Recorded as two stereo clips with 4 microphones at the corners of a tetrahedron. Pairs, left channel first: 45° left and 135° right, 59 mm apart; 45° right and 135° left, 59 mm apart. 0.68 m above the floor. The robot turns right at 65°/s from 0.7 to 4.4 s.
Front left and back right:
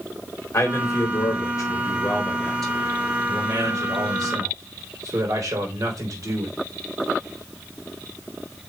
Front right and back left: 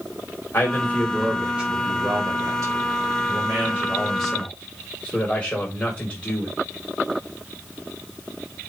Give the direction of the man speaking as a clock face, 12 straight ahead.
12 o'clock.